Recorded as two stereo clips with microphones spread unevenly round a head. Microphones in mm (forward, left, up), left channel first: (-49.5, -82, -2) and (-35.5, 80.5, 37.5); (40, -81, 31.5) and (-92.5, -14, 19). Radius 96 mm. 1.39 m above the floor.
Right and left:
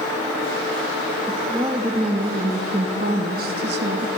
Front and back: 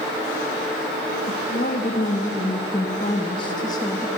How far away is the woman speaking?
About 2.5 m.